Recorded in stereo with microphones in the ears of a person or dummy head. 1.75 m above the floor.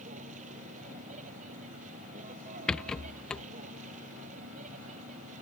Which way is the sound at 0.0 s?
45° right (ahead or behind).